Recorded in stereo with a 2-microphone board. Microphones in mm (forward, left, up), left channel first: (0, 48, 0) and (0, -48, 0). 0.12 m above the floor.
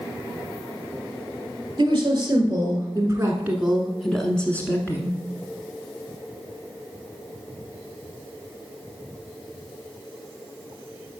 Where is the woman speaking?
45° right (ahead or behind), 1.9 m; by 5.2 s 30° left (ahead or behind), 1.3 m.